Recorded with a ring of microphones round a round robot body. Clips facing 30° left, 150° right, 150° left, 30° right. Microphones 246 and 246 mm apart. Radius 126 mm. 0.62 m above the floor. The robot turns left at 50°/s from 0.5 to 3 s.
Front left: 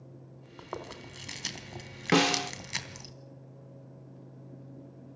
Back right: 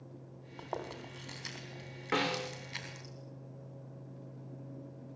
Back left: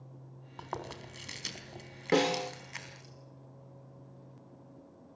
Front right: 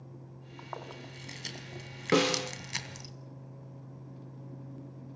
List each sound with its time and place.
0.6 s chewing: 115° left, 3 m; by 3.1 s 10° right, 3 m
2.1 s a snare drum: 50° left, 1.4 m; by 2.5 s 30° left, 1.4 m